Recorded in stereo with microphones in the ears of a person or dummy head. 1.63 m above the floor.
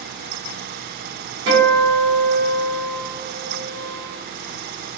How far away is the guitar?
About 1.3 m.